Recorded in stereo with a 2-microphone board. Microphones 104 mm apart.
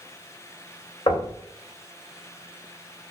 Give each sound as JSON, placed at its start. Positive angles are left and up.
{"t": 1.1, "sound": "knocking", "side_deg": 50, "distance_m": 2.5}